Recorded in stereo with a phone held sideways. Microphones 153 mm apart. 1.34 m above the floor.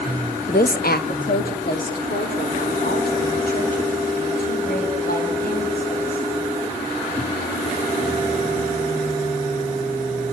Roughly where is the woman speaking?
Left.